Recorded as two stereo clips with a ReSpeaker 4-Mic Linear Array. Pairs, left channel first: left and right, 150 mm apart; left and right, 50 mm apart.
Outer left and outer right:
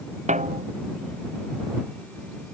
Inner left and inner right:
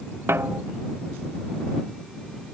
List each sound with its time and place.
0.3 s a snare drum: 50° right (ahead or behind)